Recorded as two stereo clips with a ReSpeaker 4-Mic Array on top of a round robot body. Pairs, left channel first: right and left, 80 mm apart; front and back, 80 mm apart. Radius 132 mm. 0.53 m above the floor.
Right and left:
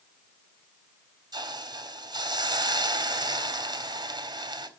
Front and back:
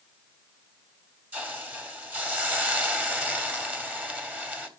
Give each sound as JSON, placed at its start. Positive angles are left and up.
{"t": 1.3, "sound": "a hiss", "azimuth_deg": 110, "distance_m": 2.5}